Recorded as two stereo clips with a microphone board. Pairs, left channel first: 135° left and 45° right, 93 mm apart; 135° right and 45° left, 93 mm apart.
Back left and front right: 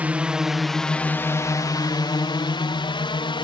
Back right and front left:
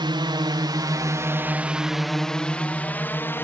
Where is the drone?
25° left; by 3.5 s 160° left.